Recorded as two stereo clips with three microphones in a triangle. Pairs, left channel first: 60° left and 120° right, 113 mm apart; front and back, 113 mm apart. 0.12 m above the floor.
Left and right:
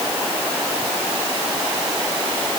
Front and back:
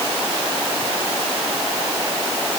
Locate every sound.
Only background noise.